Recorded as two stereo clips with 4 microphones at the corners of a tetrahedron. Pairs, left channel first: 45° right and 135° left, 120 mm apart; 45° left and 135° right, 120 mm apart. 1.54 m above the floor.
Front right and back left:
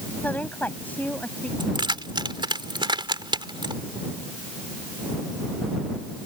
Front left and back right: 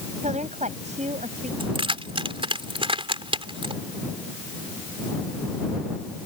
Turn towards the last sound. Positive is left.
turn(degrees=-175)